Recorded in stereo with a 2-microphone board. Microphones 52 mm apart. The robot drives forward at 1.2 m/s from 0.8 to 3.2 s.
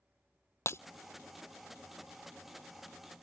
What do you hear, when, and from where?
0.7 s breaking glass: 55° left (ahead or behind)